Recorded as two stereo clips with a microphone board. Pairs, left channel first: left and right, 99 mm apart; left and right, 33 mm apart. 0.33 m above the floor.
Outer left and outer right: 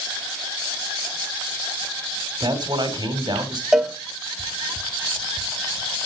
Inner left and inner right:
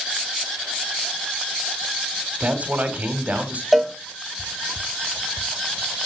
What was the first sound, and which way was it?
A man speaking, 50° right (ahead or behind).